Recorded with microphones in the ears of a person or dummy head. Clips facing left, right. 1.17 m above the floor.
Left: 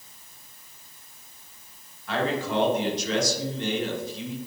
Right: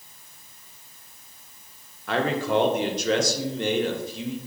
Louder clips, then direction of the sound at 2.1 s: Right 3 dB; 45° right (ahead or behind).